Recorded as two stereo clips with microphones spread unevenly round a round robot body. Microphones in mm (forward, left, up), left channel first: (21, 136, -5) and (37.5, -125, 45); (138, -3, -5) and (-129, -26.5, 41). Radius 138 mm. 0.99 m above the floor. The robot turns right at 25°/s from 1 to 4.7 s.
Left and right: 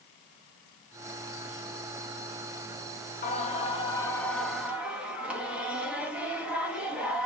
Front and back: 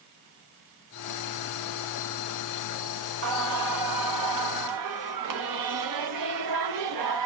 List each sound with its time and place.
3.2 s singing: 145° left, 0.8 m; by 7.3 s 175° right, 0.8 m